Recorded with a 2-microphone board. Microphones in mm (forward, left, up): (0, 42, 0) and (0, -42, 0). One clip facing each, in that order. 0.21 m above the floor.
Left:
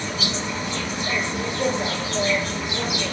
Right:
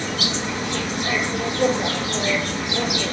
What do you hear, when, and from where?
0.0 s an insect: 75° right (ahead or behind), 0.9 m